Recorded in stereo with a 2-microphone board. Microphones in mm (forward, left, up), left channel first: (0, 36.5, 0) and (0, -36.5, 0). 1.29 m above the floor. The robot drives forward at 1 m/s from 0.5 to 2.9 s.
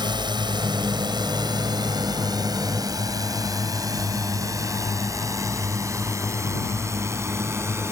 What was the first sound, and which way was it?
A drone, 85° right.